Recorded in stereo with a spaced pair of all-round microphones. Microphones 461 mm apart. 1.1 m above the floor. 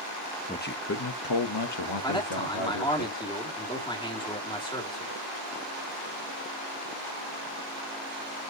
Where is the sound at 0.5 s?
15° left (ahead or behind), 0.9 m; by 3.0 s 85° left, 1.8 m.